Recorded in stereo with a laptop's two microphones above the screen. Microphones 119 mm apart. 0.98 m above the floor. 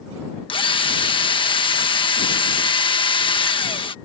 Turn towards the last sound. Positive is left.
turn(degrees=45)  # may be behind; listen again after turning